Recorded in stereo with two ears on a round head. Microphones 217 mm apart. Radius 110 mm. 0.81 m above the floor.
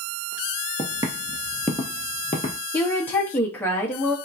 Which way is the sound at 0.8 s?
20° right (ahead or behind).